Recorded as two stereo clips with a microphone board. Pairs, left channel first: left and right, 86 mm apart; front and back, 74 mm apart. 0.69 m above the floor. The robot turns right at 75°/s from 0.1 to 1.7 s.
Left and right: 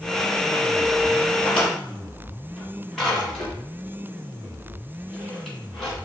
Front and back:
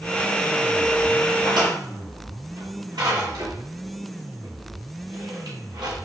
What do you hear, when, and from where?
1.4 s a drawer: 160° left, 2 m; by 6.0 s 175° left, 2 m